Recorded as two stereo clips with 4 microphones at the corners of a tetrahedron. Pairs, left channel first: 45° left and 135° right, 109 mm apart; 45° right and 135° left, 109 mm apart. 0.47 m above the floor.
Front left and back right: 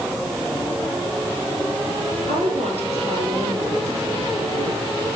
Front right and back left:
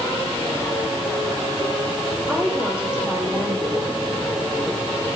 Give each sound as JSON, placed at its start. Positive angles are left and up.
{"t": 2.3, "sound": "a woman speaking", "azimuth_deg": -150, "distance_m": 9.0}